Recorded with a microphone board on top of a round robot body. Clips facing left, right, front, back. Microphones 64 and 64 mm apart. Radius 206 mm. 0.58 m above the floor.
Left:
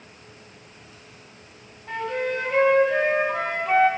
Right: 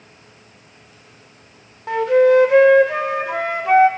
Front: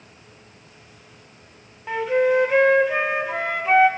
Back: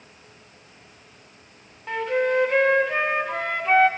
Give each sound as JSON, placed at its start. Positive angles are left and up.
{"t": 1.9, "sound": "a flute", "azimuth_deg": -80, "distance_m": 0.6}